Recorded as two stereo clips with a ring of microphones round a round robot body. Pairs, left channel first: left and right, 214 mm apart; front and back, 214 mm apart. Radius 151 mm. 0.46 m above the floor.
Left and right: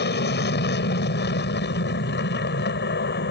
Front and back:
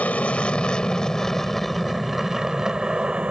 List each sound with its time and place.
0.0 s an aircraft: 80° left; by 3.3 s 95° left